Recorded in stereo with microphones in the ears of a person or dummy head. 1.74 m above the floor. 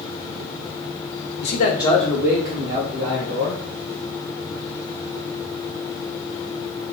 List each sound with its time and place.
1.4 s a man speaking: 60° left (ahead or behind), 0.8 m; by 3.6 s 35° right (ahead or behind), 2.5 m